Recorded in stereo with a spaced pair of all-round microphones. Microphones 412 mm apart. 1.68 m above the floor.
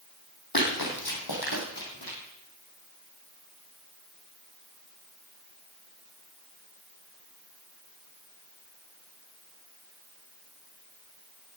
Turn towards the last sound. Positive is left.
turn(degrees=60)  # may be behind; listen again after turning